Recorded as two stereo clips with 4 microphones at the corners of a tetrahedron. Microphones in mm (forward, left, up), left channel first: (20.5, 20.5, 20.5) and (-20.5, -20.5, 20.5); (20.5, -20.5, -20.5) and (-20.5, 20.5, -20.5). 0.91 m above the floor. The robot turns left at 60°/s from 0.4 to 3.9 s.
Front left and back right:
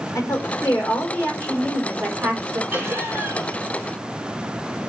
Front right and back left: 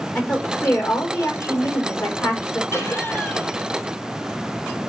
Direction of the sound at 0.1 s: 30° left.